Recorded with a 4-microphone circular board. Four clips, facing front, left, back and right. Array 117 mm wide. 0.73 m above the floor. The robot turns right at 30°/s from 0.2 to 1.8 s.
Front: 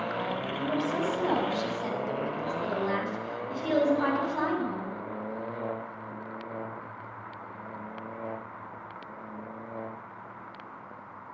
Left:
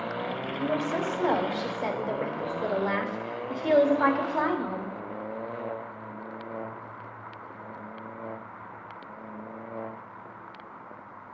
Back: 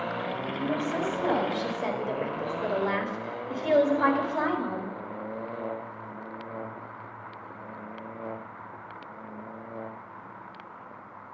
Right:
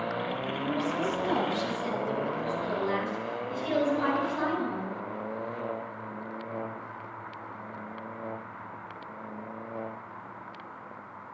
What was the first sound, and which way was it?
A woman speaking, 75° left.